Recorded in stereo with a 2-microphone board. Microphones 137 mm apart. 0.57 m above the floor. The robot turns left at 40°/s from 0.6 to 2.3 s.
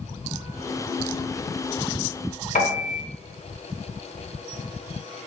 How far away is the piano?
About 0.5 m.